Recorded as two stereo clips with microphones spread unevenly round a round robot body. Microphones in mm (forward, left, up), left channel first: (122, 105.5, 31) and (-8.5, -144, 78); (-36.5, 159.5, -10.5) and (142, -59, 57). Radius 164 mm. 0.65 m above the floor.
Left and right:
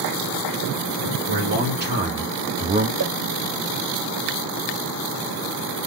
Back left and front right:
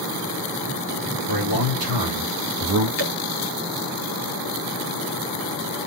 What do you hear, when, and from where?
1.3 s a man speaking: 60° right, 1.8 m; by 2.9 s 50° right, 0.8 m
3.0 s a whoosh: 70° right, 1.4 m